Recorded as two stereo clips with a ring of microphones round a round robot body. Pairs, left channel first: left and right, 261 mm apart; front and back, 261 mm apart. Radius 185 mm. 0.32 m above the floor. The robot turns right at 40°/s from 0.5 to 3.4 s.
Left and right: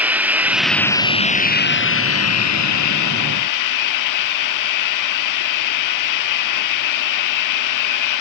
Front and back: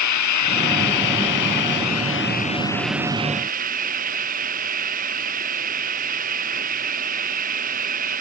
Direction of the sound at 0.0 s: 5° right.